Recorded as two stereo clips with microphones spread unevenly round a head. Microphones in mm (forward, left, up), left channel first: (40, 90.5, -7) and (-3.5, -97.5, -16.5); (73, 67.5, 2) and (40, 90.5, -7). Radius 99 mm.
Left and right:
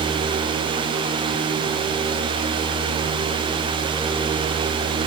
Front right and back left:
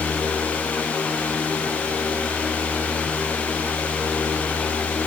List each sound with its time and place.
Only background noise.